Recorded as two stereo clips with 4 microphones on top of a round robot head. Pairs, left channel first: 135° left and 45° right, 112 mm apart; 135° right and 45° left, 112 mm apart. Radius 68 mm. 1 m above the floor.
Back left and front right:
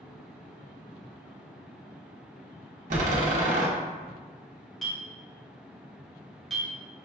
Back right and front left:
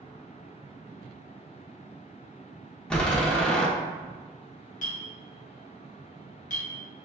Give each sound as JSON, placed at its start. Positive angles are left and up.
{"t": 2.9, "sound": "a door slam", "azimuth_deg": -55, "distance_m": 0.8}
{"t": 4.8, "sound": "a clink", "azimuth_deg": -135, "distance_m": 1.0}